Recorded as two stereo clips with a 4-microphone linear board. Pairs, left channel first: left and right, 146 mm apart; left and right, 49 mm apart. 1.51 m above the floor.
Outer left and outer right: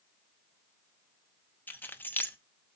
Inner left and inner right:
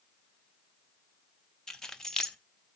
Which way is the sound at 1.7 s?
10° left (ahead or behind).